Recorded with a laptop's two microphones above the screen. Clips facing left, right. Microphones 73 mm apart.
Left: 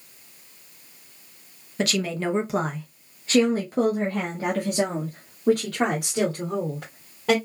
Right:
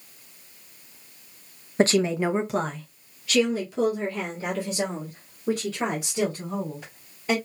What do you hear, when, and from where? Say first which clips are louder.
1.8 s a woman speaking: right 5 dB; 35° right (ahead or behind), 0.7 m; by 7.3 s 65° left (ahead or behind), 3 m